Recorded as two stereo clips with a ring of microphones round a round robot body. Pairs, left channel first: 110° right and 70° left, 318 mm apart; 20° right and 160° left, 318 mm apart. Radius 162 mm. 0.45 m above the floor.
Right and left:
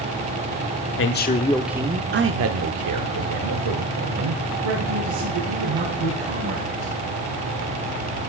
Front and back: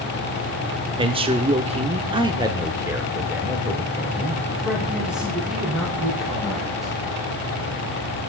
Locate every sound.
1.0 s a man speaking: 135° right, 1.0 m; by 6.9 s 70° left, 5 m